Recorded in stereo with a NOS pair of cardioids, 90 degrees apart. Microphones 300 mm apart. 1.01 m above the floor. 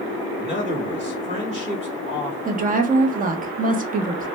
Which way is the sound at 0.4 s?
20° right.